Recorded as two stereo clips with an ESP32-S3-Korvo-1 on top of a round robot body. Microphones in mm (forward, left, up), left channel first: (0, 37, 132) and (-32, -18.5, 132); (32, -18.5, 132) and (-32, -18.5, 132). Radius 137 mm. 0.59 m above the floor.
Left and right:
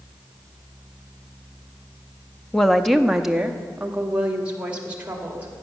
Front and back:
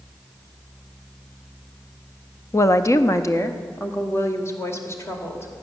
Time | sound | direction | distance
2.5 | a woman speaking | 15° right | 0.7 m